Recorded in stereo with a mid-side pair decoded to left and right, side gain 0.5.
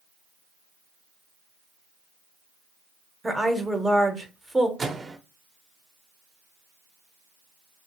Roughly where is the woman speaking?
Ahead.